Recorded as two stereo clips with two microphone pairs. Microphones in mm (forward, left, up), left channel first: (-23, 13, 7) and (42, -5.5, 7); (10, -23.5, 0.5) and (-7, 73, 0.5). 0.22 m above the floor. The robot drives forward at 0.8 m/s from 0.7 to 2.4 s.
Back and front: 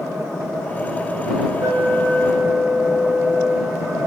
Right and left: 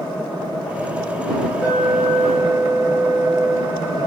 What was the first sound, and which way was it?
An alarm, 30° left.